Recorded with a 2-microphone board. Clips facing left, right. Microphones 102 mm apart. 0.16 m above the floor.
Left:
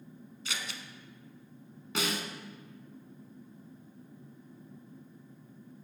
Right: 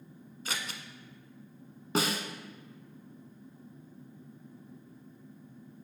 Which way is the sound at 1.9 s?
35° right (ahead or behind).